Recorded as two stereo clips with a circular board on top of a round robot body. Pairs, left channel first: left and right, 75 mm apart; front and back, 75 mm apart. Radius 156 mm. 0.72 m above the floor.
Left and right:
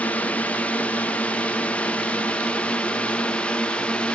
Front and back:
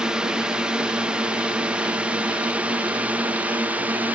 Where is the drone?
120° left; by 4.2 s 145° left.